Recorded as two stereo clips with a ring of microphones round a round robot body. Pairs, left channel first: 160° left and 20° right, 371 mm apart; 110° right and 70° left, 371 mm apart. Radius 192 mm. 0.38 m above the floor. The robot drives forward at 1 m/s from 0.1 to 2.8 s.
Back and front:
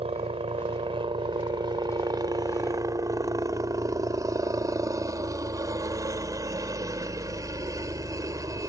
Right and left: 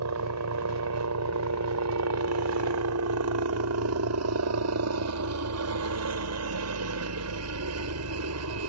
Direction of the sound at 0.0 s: 45° left.